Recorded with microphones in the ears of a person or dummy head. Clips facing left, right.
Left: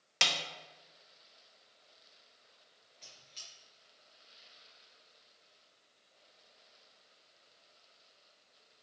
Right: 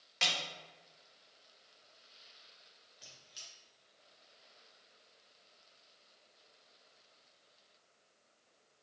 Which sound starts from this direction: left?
A snare drum, at 0.2 s.